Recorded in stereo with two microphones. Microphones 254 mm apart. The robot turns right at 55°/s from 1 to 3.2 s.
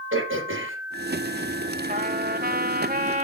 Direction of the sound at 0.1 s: 50° right (ahead or behind).